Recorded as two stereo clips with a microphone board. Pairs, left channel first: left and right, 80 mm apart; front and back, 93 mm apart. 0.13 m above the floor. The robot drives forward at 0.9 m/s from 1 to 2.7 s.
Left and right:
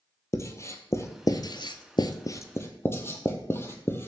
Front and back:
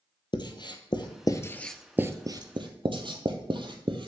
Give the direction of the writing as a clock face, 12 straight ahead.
11 o'clock.